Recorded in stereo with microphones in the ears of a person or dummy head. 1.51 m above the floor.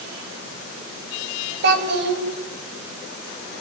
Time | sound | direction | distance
1.6 | a child speaking | 60° right (ahead or behind) | 4.5 m